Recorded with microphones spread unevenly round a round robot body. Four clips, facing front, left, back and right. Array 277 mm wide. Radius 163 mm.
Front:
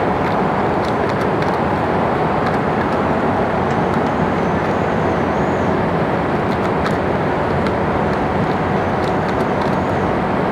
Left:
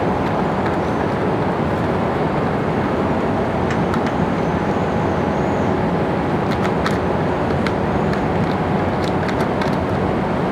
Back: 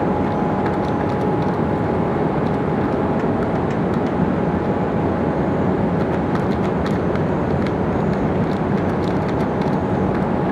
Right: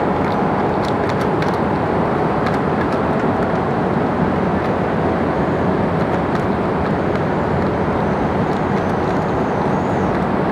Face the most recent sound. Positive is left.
No sound to turn to.